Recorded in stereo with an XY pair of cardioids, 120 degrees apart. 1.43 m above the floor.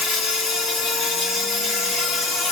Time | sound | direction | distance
0.0 | an insect | 55° left | 4 m